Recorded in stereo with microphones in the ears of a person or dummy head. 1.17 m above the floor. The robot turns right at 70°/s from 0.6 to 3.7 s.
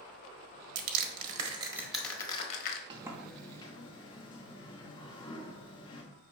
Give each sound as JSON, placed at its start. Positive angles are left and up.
{"t": 0.8, "sound": "crushing", "side_deg": -65, "distance_m": 1.2}
{"t": 2.9, "sound": "a sliding door", "azimuth_deg": -25, "distance_m": 1.2}